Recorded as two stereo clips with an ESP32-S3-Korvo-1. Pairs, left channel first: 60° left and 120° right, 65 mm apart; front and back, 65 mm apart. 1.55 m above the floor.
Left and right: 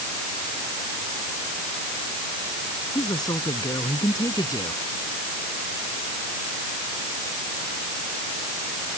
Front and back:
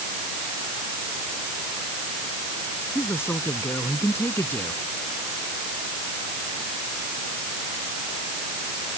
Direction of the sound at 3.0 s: 50° left.